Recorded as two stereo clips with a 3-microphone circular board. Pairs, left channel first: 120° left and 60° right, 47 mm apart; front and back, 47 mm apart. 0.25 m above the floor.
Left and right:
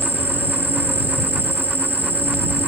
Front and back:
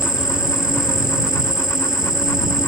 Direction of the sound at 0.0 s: 105° right.